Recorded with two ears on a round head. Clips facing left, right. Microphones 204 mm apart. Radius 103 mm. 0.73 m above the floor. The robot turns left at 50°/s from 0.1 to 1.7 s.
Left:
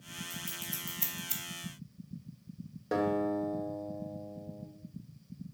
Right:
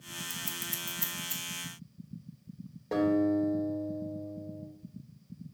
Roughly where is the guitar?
Centre.